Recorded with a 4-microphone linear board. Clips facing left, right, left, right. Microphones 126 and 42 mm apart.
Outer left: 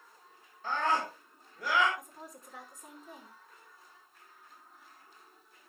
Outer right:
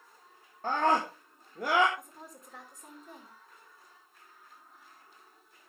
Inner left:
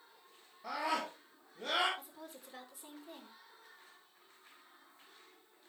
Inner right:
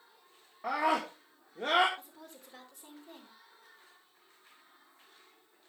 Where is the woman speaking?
Centre (ahead or behind), 5 m.